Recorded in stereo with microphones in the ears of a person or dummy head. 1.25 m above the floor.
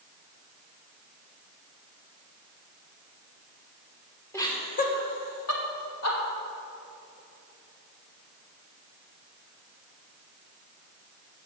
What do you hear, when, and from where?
4.3 s laughter: 15° left (ahead or behind), 1.3 m; by 6.2 s 80° left, 2.5 m